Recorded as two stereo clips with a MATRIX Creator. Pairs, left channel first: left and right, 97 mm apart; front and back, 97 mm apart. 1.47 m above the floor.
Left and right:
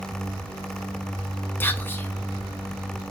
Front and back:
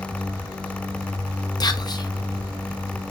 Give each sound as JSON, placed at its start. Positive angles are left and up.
{"t": 1.6, "sound": "whispering", "azimuth_deg": 25, "distance_m": 0.6}